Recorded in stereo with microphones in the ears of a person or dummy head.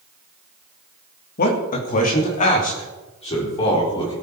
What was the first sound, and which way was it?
A man speaking, 50° left (ahead or behind).